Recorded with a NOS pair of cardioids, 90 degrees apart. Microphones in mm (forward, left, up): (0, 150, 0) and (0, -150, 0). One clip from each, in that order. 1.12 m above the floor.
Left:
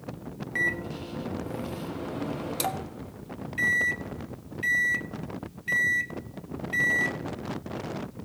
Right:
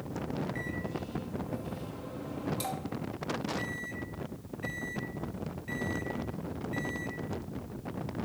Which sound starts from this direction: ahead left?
A microwave, at 0.6 s.